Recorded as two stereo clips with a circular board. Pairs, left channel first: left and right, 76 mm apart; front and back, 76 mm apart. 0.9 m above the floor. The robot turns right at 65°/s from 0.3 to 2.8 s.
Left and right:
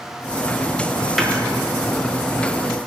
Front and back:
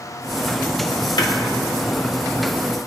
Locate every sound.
1.2 s a snare drum: straight ahead, 1.4 m; by 1.3 s 10° left, 1.4 m